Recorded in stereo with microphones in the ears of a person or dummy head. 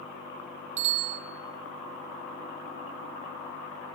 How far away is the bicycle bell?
About 4 m.